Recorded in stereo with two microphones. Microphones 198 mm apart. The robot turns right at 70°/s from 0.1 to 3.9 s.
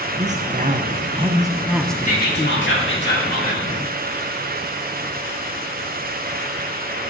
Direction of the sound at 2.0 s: 40° left.